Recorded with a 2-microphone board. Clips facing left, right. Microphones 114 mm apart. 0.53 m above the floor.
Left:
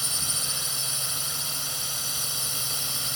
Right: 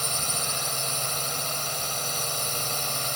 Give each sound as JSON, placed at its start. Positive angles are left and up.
{"t": 0.0, "sound": "a drone", "side_deg": -60}